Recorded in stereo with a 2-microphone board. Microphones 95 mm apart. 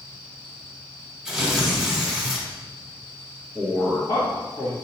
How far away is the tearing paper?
About 1.2 m.